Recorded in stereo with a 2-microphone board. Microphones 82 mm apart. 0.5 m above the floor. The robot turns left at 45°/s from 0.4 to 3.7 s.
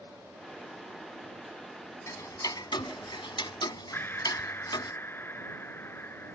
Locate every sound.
2.1 s ticking: 40° left (ahead or behind); by 4.9 s 65° left (ahead or behind)
3.9 s breathing: 25° left (ahead or behind)